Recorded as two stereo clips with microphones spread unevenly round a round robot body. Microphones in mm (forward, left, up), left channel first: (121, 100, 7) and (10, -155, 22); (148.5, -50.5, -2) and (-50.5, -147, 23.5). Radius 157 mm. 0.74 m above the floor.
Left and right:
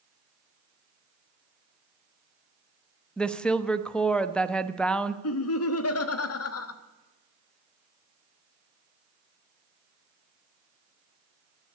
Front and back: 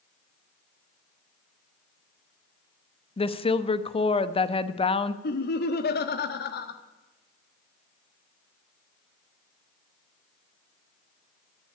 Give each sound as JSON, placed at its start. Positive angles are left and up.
{"t": 3.2, "sound": "a woman speaking", "azimuth_deg": -15, "distance_m": 1.0}
{"t": 5.2, "sound": "laughter", "azimuth_deg": 60, "distance_m": 1.3}